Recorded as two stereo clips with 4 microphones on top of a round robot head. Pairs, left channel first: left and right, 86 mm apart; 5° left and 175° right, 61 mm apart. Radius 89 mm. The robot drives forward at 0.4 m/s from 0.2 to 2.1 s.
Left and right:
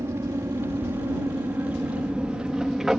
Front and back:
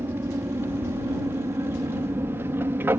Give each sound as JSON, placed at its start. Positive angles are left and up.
{"t": 0.0, "sound": "an aircraft", "azimuth_deg": -140}